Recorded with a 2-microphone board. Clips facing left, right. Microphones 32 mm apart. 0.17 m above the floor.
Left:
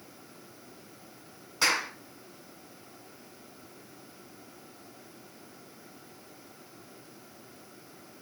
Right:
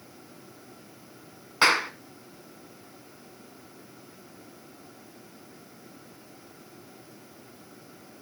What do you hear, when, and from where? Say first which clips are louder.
1.6 s a clap: right 5 dB; 35° right (ahead or behind), 1.6 m